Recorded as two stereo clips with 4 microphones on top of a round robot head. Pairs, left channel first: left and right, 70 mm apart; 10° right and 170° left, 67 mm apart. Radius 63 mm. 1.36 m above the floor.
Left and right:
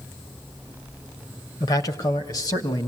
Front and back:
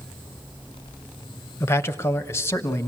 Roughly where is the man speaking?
Ahead left.